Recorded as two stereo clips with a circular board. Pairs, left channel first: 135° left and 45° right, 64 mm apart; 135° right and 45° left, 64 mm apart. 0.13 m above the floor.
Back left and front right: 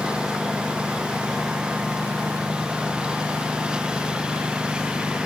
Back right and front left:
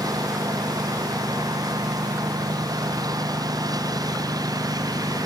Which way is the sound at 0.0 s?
30° left.